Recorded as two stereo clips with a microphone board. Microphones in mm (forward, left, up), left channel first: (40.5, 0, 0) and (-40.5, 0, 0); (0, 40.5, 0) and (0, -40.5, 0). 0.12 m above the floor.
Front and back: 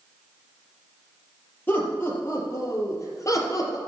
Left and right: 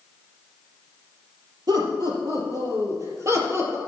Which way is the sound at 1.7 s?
65° right.